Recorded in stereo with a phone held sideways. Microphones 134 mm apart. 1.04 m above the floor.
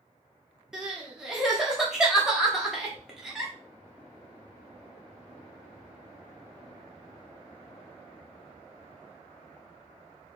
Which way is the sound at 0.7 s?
5° right (ahead or behind).